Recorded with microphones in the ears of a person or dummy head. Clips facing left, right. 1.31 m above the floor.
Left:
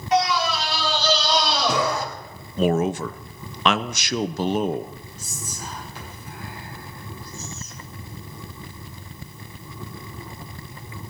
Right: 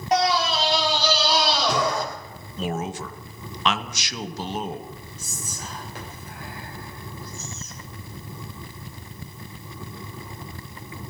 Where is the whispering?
50° right (ahead or behind), 7.5 m.